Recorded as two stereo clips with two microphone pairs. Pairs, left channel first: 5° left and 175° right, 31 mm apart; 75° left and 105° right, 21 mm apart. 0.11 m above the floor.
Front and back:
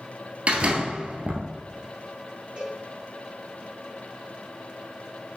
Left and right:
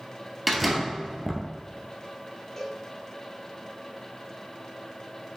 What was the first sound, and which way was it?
A door slam, 160° left.